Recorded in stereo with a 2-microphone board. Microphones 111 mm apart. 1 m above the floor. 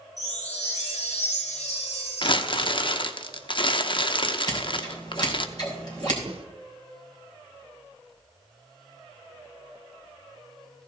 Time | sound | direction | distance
0.2 | a chime | 80° left | 2.5 m
2.2 | crumpling | 50° left (ahead or behind) | 0.7 m
4.5 | scissors | 40° left (ahead or behind) | 3.5 m
6.3 | a snare drum | 55° right (ahead or behind) | 1.1 m